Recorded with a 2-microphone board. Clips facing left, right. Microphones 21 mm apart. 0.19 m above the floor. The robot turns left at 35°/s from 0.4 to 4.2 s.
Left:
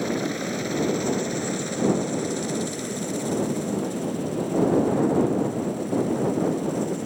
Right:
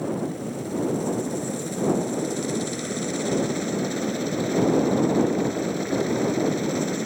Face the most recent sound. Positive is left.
turn(degrees=-60)